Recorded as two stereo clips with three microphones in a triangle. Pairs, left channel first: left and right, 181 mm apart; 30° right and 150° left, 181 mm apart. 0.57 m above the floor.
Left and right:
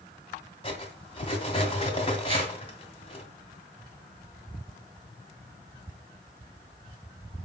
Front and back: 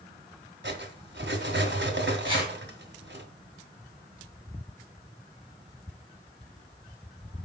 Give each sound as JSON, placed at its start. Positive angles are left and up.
{"t": 0.6, "sound": "cutlery clinking", "azimuth_deg": 150, "distance_m": 2.0}
{"t": 2.2, "sound": "a whoosh", "azimuth_deg": -150, "distance_m": 4.0}